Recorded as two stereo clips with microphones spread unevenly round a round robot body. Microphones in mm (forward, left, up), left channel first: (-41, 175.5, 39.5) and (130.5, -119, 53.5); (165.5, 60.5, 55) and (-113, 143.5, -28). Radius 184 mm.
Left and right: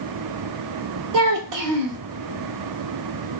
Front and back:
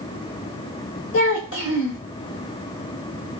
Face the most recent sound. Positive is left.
turn(degrees=-75)